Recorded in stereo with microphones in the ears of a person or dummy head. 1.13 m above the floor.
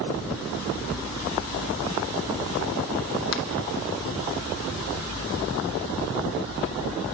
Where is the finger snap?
70° left (ahead or behind), 2 m.